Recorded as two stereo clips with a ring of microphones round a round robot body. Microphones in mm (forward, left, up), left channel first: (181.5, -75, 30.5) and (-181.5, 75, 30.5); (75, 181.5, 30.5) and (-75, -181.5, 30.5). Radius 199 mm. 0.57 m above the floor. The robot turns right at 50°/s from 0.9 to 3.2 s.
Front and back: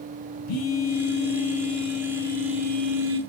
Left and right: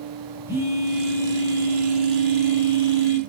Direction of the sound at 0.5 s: 30° right.